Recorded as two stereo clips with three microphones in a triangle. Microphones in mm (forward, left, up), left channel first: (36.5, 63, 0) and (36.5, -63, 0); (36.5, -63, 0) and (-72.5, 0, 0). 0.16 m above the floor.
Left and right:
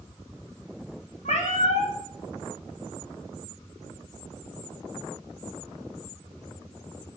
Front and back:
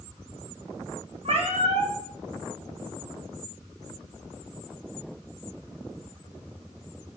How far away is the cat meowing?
About 1.6 m.